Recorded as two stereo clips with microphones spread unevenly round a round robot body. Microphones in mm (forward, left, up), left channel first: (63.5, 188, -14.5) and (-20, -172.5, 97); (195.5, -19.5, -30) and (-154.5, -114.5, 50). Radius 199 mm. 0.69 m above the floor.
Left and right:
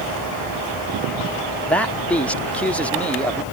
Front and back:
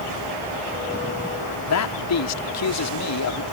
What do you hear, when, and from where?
1.7 s a man speaking: 5° left